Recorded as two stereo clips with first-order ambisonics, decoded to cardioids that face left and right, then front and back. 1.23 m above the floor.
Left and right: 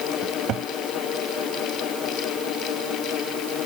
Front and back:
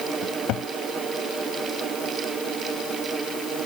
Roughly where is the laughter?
I don't hear laughter.